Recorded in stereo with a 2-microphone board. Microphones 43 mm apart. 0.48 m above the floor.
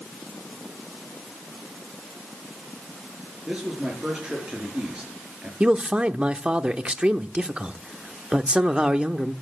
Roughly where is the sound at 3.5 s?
Right.